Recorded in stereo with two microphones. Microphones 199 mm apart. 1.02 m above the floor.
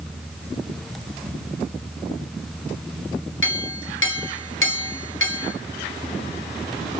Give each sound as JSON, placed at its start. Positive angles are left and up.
{"t": 3.4, "sound": "a clink", "side_deg": 85, "distance_m": 0.9}